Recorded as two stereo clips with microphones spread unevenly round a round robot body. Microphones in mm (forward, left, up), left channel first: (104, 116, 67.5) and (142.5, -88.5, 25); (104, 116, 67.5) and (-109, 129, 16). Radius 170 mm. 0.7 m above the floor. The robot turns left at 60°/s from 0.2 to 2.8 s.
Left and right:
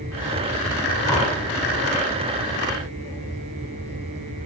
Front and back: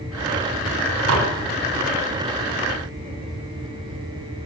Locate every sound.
1.1 s dishes clattering: 175° right, 3 m; by 1.3 s 170° left, 3 m